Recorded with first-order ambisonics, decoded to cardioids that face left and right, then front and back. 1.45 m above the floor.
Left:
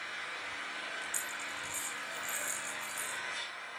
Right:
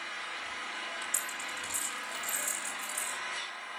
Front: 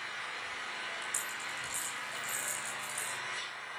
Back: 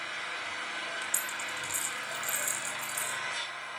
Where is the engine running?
175° right, 4.5 m.